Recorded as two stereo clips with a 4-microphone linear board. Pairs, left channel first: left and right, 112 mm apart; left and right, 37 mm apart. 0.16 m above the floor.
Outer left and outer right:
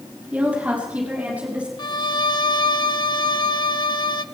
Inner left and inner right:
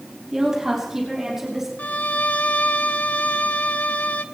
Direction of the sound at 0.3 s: 15° right (ahead or behind).